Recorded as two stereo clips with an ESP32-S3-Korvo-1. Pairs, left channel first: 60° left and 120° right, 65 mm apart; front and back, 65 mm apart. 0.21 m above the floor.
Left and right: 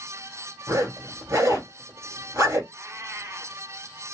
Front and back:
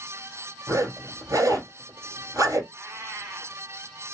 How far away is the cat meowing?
About 1.1 m.